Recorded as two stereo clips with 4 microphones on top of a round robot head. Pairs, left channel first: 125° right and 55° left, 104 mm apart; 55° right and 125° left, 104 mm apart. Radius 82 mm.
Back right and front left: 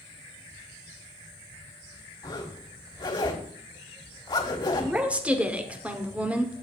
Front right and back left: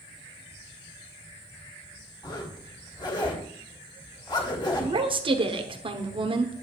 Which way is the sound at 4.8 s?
130° left.